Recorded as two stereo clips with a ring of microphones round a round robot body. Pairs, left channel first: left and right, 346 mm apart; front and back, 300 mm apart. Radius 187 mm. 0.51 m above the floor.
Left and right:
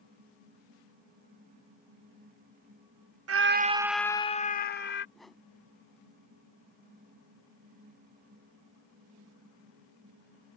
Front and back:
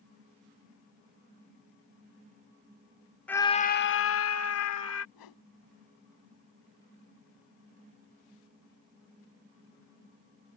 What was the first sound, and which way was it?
A scream, 85° right.